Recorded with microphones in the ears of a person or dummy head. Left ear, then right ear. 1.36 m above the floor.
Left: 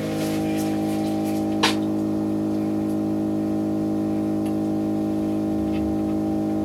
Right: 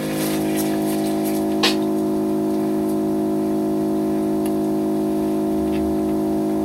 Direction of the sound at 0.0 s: 30° right (ahead or behind).